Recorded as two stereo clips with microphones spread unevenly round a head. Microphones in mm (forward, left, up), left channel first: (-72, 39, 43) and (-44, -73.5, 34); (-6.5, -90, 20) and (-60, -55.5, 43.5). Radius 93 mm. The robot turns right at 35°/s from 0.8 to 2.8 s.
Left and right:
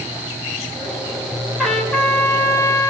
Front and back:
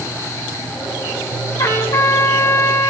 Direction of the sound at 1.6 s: 20° left.